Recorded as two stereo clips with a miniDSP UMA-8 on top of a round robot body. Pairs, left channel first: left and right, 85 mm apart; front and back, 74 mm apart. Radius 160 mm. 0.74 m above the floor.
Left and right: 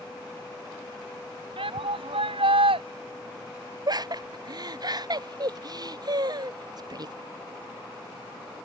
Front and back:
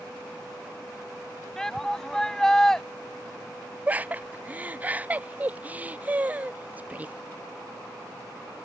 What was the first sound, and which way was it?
A shout, 85° right.